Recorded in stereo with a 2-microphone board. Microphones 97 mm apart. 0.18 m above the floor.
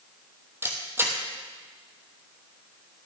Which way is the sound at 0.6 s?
25° right (ahead or behind).